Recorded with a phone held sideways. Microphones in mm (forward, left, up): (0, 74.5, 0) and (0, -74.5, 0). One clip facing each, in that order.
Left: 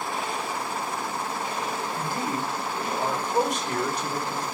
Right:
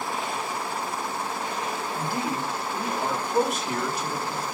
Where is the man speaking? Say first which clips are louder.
Right 2 dB; 5° right (ahead or behind), 2.5 m.